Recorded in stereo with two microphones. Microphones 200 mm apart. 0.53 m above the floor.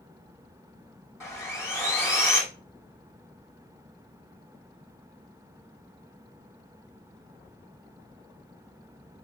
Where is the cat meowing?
I don't hear a cat meowing.